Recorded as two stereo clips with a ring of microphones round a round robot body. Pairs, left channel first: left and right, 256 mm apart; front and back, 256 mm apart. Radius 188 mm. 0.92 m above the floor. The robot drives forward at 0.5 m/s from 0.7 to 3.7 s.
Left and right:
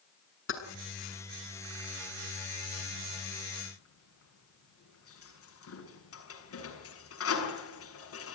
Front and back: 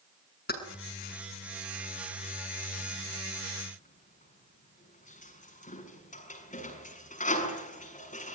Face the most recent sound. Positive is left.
turn(degrees=60)